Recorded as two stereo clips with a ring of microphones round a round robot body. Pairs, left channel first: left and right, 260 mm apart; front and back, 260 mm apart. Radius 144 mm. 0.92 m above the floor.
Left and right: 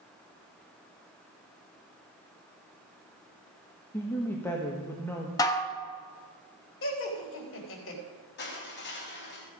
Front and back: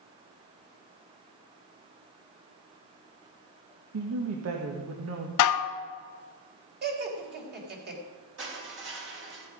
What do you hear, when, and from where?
3.9 s a woman speaking: 170° left, 1.4 m
5.4 s dishes clattering: 10° left, 0.7 m
6.8 s laughter: 130° left, 3 m
8.4 s crushing: 140° left, 3.5 m